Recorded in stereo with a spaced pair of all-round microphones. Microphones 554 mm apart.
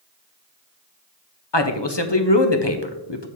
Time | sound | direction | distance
1.5 | a man speaking | 45° left (ahead or behind) | 1.0 m